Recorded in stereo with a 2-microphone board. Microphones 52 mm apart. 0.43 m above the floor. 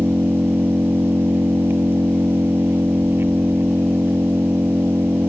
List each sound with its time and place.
0.0 s an engine running: 50° right (ahead or behind)